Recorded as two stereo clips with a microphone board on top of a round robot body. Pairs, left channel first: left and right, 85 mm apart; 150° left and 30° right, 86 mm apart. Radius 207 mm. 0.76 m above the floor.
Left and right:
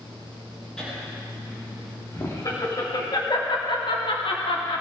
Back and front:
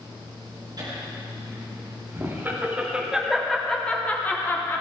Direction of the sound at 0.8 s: 10° left.